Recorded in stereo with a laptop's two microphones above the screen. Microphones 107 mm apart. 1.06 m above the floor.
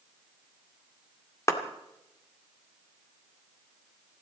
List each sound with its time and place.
1.5 s a clap: 30° left (ahead or behind), 2 m